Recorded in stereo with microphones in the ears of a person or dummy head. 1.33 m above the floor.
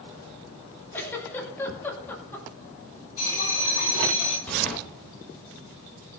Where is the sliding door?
5° left (ahead or behind), 4 m.